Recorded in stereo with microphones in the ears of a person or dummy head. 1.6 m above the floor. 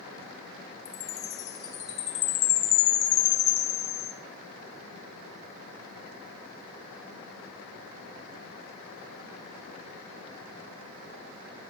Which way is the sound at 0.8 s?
50° left (ahead or behind).